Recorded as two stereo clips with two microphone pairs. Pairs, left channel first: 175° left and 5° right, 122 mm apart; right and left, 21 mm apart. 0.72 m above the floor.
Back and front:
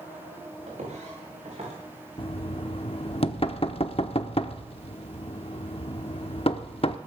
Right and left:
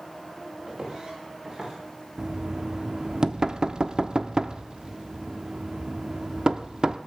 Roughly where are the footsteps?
Ahead left.